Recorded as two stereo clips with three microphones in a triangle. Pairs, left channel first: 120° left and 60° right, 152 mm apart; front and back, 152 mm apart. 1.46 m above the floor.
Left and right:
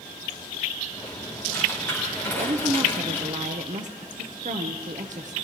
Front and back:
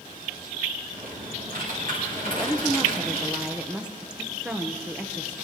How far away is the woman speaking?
About 0.8 m.